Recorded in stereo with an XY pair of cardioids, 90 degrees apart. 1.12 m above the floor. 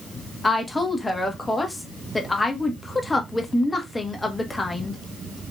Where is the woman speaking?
25° left, 1.3 m.